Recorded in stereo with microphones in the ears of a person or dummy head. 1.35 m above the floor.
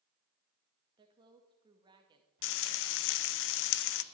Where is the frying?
60° left (ahead or behind), 0.6 m.